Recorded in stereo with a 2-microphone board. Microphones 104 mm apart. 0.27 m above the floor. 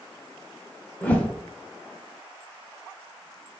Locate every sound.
1.0 s a whoosh: 15° left (ahead or behind), 0.8 m